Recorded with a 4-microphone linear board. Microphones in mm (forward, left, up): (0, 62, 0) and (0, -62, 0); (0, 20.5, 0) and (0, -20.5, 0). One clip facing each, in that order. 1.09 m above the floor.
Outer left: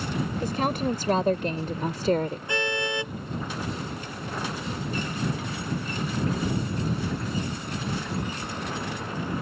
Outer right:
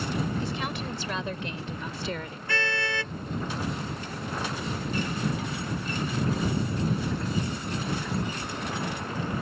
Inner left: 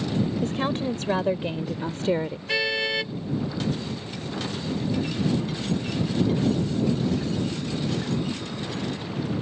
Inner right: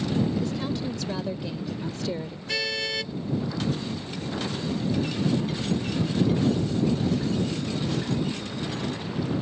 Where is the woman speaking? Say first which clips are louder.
Outer left 6 dB, inner left 3 dB; 40° left (ahead or behind).